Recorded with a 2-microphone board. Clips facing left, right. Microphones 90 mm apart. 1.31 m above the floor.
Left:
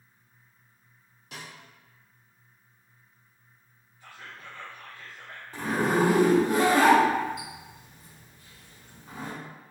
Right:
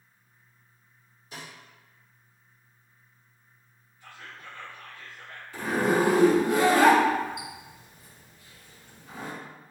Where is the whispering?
25° left (ahead or behind), 1.0 m.